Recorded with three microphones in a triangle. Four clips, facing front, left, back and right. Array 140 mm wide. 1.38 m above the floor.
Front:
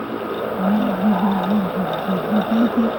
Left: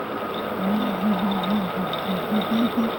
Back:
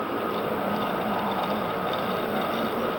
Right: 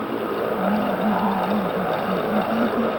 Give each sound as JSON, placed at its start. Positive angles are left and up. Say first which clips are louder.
{"t": 0.6, "sound": "laughter", "louder": "even, front 8 dB", "azimuth_deg": 5}